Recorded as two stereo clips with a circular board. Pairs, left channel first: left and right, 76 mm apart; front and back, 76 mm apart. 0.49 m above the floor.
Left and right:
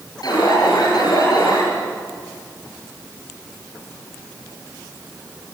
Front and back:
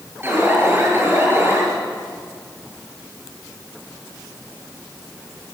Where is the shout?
No shout in this recording.